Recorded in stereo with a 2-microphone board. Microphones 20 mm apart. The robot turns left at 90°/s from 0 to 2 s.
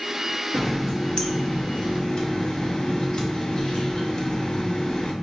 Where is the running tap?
Straight behind, 0.8 m; by 5.1 s 50° left, 0.8 m.